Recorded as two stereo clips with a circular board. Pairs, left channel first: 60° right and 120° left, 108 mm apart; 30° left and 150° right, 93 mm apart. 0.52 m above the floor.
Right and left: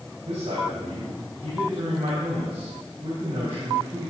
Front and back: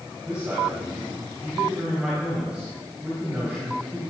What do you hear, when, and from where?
0.2 s a man speaking: 130° left, 3.5 m